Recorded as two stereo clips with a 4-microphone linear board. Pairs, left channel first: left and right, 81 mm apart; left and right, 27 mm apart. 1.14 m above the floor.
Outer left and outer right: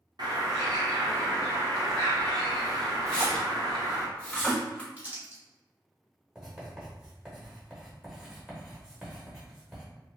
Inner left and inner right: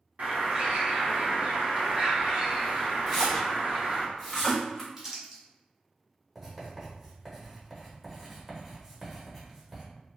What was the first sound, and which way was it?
A bird, 55° right (ahead or behind).